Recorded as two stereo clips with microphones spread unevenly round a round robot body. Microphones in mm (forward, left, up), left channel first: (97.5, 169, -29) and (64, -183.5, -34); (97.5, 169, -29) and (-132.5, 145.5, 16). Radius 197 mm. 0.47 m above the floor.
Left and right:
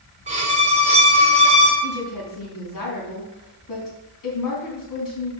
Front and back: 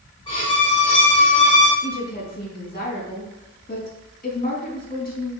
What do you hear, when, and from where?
0.3 s a violin: 35° right, 1.4 m
1.8 s a woman speaking: 55° left, 3.5 m